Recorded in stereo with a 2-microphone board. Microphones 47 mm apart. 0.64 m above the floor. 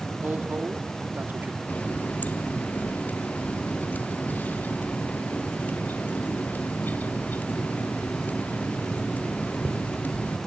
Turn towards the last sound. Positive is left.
turn(degrees=40)  # may be behind; listen again after turning